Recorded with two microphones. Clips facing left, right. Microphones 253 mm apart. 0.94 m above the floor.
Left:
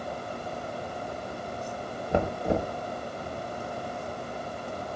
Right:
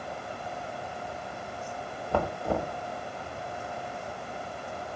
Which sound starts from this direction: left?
Knocking, at 2.1 s.